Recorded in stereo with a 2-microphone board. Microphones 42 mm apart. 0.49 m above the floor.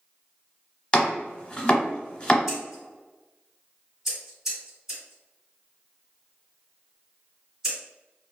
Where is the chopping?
25° left (ahead or behind), 0.8 m.